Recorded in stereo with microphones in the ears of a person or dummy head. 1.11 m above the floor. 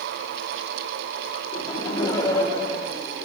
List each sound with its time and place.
1.5 s laughter: 25° left (ahead or behind), 2.5 m; by 3.2 s 15° left (ahead or behind), 3.5 m